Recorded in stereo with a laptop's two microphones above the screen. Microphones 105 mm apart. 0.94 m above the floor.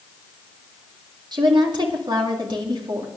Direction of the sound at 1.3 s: 45° right (ahead or behind).